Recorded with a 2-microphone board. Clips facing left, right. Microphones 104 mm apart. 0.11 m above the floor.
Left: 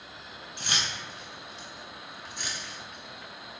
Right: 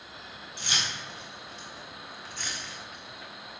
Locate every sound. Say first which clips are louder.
0.6 s keys jangling: left 1 dB; 50° left (ahead or behind), 1.9 m; by 3.6 s 25° right (ahead or behind), 1.2 m